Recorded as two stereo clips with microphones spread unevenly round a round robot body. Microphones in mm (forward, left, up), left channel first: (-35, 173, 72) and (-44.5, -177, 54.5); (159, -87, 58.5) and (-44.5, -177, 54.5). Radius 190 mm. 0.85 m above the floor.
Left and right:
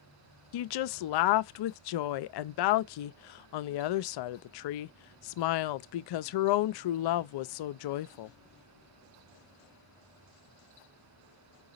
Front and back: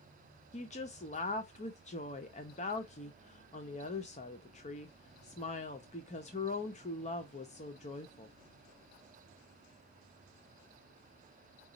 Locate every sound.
0.5 s a woman speaking: 85° left, 0.5 m